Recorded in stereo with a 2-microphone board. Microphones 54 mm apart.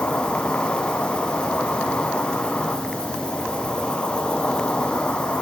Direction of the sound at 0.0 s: 20° left (ahead or behind).